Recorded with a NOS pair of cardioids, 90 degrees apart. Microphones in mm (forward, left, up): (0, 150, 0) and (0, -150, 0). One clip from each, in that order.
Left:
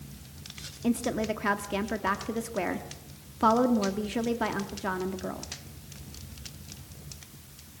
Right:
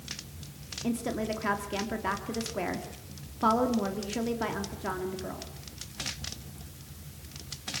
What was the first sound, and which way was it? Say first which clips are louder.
A woman speaking: left 3 dB; 25° left.